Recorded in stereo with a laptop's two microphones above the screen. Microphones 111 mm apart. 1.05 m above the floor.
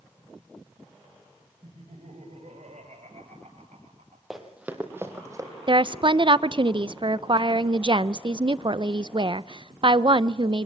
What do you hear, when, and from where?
1.6 s laughter: 75° right (ahead or behind), 6.5 m; by 4.2 s 80° right, 8 m
4.3 s running footsteps: centre (ahead or behind), 2.5 m; by 5.5 s 30° right (ahead or behind), 3 m
5.7 s a woman speaking: 45° right (ahead or behind), 0.6 m